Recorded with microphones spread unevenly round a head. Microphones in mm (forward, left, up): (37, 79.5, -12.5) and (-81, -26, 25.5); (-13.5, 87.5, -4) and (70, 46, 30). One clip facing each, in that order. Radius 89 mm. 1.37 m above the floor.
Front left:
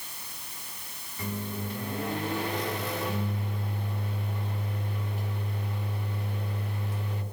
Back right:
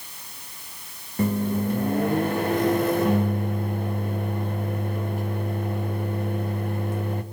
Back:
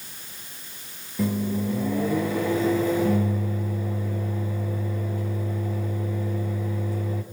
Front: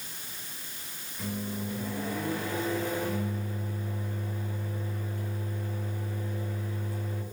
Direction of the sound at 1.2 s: 165° right.